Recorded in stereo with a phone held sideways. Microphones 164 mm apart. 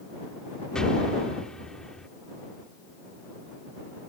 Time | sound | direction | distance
0.8 | an explosion | 5° left (ahead or behind) | ?